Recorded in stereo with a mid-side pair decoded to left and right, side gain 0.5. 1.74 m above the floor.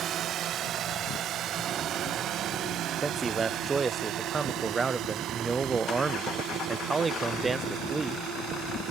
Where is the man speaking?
30° right.